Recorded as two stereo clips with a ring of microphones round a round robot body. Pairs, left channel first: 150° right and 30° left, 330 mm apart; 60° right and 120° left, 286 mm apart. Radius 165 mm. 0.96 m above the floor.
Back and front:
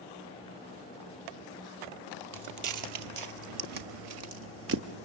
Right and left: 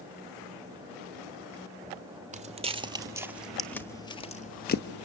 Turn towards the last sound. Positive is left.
turn(degrees=-25)